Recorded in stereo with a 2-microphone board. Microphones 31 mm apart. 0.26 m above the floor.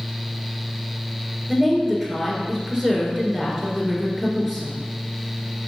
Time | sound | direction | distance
1.5 | a woman speaking | centre (ahead or behind) | 3.5 m